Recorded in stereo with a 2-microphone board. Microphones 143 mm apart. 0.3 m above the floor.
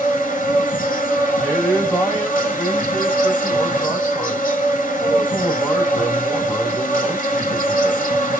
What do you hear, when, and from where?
0.0 s an insect: 70° left (ahead or behind), 0.9 m
1.4 s a man speaking: 5° left (ahead or behind), 1.4 m